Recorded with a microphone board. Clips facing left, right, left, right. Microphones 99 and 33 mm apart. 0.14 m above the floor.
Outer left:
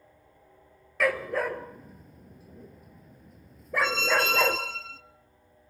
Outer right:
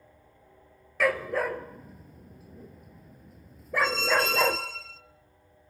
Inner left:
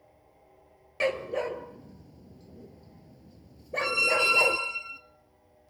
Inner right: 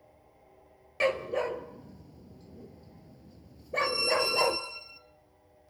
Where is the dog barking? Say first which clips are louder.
Even, even; centre (ahead or behind), 1.0 m.